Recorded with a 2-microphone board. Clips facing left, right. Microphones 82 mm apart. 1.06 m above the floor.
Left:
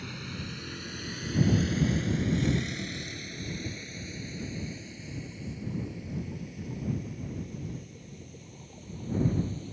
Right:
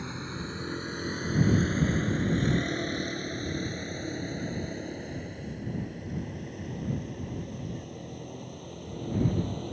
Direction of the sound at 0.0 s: 25° right (ahead or behind).